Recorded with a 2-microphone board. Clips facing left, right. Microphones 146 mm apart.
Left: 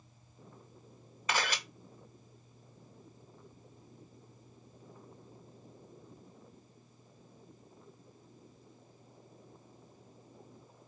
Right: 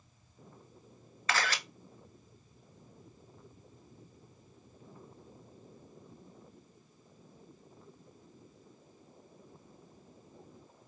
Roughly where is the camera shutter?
Centre.